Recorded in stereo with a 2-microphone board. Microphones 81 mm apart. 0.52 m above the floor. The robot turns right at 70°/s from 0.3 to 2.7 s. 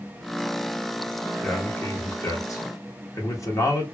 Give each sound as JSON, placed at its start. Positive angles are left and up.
{"t": 1.4, "sound": "a man speaking", "azimuth_deg": 15, "distance_m": 0.9}